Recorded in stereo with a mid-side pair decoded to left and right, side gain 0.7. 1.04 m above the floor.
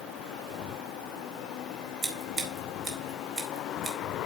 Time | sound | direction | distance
2.0 | scissors | 35° right | 4 m